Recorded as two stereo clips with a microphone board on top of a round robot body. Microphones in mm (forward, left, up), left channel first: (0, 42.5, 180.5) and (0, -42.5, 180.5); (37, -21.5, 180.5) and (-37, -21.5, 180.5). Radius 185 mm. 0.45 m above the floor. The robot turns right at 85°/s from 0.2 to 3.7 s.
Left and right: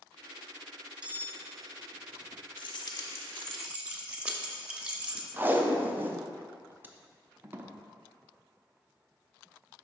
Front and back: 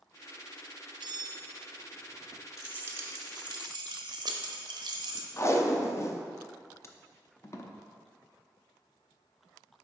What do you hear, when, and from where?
1.0 s cutlery clinking: 170° right, 0.7 m; by 1.5 s 130° right, 0.7 m
2.6 s keys jangling: 100° left, 0.9 m; by 5.3 s 165° right, 0.9 m
5.4 s tape being pulled: 30° right, 0.8 m